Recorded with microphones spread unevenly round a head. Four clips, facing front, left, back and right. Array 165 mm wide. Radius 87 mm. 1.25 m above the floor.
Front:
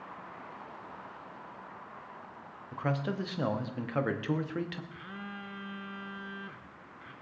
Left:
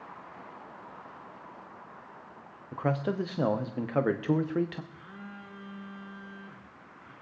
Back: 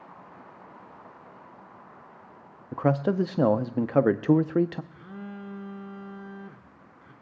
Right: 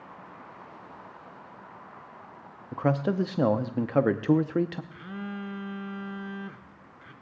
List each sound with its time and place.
2.7 s a man speaking: 165° right, 0.5 m
4.9 s a phone buzzing: 40° right, 0.9 m